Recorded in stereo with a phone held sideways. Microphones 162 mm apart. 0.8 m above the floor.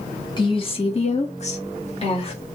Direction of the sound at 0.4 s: 30° left (ahead or behind).